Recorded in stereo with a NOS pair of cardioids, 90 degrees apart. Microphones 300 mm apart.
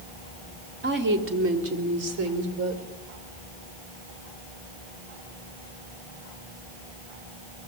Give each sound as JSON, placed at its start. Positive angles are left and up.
{"t": 0.8, "sound": "a woman speaking", "azimuth_deg": -35, "distance_m": 3.5}